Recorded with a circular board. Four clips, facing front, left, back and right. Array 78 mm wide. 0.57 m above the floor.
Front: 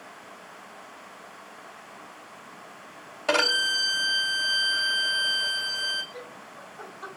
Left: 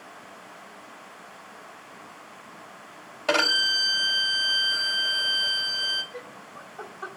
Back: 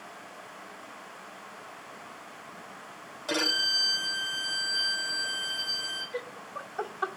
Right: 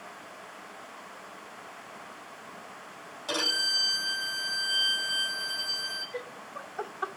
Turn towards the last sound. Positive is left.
turn(degrees=-155)